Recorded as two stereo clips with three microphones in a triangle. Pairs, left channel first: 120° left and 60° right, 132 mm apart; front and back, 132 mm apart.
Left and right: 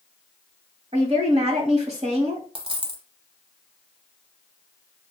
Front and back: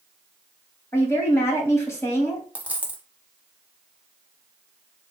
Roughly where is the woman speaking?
Ahead right.